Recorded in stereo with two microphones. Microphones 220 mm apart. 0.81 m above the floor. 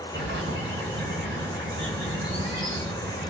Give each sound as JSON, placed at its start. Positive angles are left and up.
{"t": 0.1, "sound": "a bird", "side_deg": -55, "distance_m": 7.0}